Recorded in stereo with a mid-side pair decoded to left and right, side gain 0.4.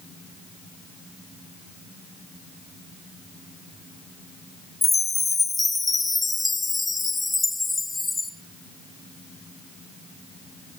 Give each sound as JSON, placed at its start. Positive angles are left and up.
{"t": 4.8, "sound": "a chime", "azimuth_deg": 25, "distance_m": 3.0}